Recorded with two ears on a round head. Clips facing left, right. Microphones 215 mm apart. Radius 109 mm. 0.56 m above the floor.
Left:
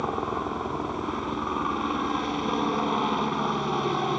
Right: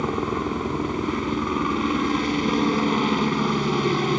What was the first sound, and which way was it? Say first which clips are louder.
A helicopter: right 5 dB; 30° right (ahead or behind).